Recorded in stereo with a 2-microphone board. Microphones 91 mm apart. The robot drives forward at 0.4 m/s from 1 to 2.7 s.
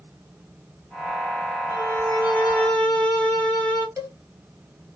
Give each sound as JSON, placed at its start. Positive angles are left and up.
{"t": 1.7, "sound": "a violin", "side_deg": 20, "distance_m": 1.5}
{"t": 4.0, "sound": "a cowbell", "side_deg": -35, "distance_m": 1.0}